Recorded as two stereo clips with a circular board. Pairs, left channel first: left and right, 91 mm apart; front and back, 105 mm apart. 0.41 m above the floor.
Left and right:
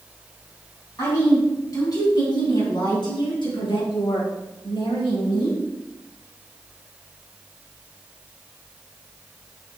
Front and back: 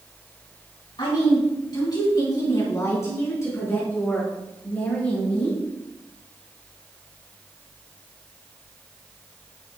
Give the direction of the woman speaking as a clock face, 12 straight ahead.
11 o'clock.